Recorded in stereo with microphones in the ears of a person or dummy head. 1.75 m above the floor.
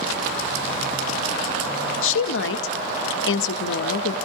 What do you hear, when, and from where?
2.0 s a woman speaking: 80° left, 0.5 m